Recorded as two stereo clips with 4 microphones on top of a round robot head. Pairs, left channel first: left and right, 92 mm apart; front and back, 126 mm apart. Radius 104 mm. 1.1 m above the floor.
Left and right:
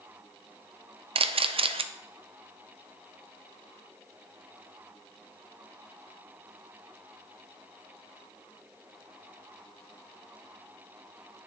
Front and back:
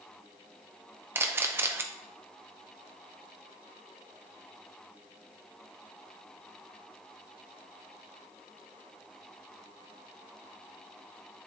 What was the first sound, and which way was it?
A camera shutter, 110° right.